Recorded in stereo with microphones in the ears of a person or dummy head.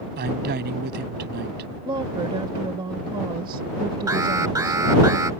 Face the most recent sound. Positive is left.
turn(degrees=-15)  # may be behind; listen again after turning